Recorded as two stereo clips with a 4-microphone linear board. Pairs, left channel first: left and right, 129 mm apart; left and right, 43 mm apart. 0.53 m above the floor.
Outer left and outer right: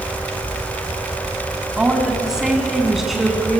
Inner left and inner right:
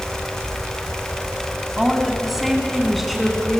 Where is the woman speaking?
5° right (ahead or behind), 4 m; by 3.6 s centre (ahead or behind), 6 m.